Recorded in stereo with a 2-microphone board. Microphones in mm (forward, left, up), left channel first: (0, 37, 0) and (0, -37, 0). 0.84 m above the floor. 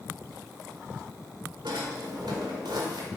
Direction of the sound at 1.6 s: 85° right.